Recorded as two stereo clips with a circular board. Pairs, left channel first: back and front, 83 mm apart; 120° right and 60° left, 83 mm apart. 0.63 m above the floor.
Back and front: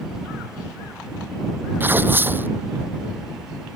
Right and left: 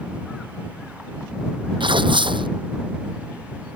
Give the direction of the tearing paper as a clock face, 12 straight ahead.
10 o'clock.